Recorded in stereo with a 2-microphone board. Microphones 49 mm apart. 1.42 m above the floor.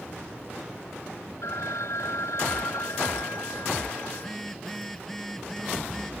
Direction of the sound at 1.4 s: 90° left.